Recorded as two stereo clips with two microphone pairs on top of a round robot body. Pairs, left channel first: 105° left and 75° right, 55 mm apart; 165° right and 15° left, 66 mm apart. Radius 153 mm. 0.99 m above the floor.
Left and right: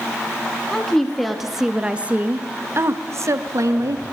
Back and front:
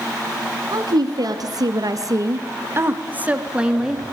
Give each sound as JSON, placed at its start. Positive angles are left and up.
{"t": 0.7, "sound": "a woman speaking", "azimuth_deg": 25, "distance_m": 3.0}